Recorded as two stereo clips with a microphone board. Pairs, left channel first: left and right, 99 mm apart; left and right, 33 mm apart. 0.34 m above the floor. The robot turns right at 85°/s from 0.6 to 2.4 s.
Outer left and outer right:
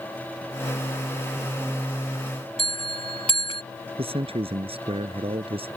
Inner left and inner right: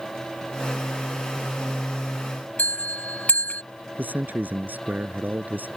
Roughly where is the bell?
Left.